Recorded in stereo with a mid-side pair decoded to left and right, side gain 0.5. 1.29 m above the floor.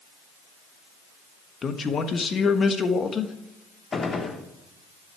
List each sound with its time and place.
1.6 s a man speaking: 40° left, 1.3 m
3.9 s a gunshot: 35° left, 1.3 m